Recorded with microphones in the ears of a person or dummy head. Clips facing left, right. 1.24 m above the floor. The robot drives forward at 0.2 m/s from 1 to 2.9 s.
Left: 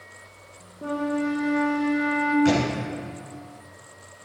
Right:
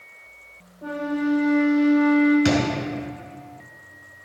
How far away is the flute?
About 1.4 m.